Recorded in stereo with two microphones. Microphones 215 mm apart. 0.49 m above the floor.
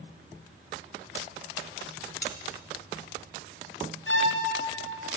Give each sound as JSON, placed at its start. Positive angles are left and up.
{"t": 2.2, "sound": "cutlery clinking", "side_deg": 65, "distance_m": 1.2}
{"t": 4.1, "sound": "a violin", "side_deg": 75, "distance_m": 3.0}